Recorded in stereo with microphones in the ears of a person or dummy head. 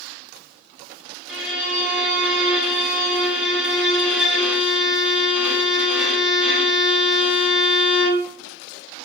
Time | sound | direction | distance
1.3 | a violin | centre (ahead or behind) | 3.5 m